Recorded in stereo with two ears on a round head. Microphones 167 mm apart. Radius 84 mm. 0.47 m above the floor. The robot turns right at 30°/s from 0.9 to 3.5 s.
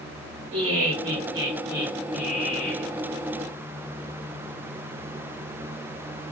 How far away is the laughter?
About 1.5 m.